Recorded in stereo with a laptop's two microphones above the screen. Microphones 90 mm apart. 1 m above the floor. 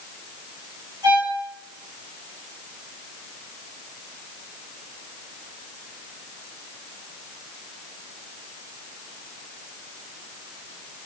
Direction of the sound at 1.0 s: 50° right (ahead or behind).